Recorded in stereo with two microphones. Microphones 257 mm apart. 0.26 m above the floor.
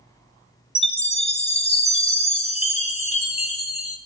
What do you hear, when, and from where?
0.8 s a chime: 25° left (ahead or behind), 2 m